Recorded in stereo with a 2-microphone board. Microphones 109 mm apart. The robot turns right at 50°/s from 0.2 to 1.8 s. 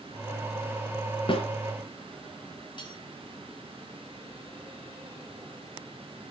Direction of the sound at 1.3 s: 50° left (ahead or behind).